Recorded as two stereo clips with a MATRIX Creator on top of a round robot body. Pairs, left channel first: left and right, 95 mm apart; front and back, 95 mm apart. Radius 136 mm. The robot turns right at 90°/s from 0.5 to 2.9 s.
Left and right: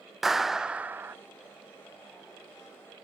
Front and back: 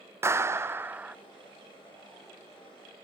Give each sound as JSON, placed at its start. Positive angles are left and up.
{"t": 0.2, "sound": "a clap", "azimuth_deg": -175, "distance_m": 0.6}